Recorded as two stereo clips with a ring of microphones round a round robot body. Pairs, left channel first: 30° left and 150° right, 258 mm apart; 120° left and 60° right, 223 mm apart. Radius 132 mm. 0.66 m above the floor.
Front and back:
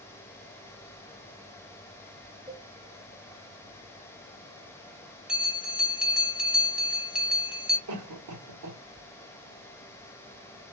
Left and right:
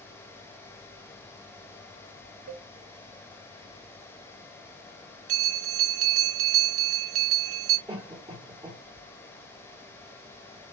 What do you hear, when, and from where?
2.5 s a cowbell: 75° right, 0.9 m
5.3 s a bell: 65° right, 1.0 m
7.9 s a cough: 140° right, 2 m